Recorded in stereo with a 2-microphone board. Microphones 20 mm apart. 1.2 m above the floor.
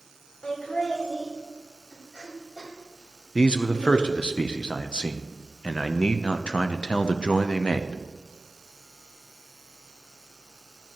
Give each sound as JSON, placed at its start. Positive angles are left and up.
{"t": 0.4, "sound": "laughter", "side_deg": 65, "distance_m": 3.5}
{"t": 3.4, "sound": "a man speaking", "side_deg": 65, "distance_m": 0.6}